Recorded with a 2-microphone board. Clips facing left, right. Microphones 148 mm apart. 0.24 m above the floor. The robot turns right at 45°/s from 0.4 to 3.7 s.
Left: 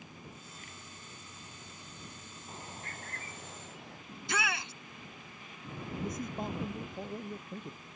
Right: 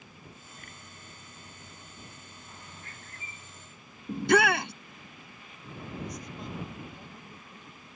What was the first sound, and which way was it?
A bird, 30° left.